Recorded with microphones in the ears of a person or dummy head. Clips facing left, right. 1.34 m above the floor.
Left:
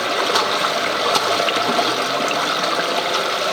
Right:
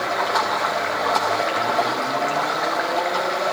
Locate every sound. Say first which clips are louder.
0.0 s running water: left 3 dB; 40° left (ahead or behind), 0.9 m